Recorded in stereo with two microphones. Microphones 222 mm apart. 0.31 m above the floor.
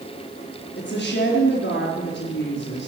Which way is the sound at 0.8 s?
60° left (ahead or behind).